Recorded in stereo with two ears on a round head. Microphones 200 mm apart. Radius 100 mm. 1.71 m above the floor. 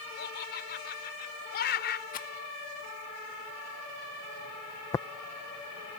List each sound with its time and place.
0.2 s laughter: 45° left (ahead or behind)
2.1 s a rattle: 35° left (ahead or behind)
4.9 s tapping: 15° left (ahead or behind)